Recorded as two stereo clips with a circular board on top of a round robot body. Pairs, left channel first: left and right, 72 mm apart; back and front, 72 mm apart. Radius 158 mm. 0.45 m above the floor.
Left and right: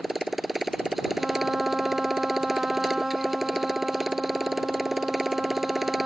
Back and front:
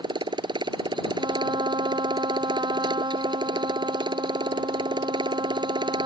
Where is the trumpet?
5° right.